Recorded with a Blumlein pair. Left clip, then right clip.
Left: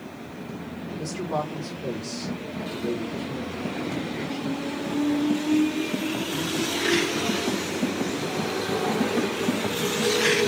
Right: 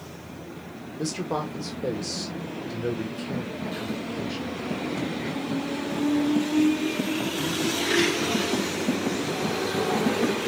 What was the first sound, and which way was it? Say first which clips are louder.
A man speaking: even; 60° right.